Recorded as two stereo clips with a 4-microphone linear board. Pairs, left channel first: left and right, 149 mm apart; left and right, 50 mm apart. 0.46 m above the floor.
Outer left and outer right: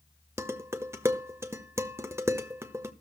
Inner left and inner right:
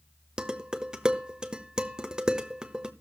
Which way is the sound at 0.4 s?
15° right (ahead or behind).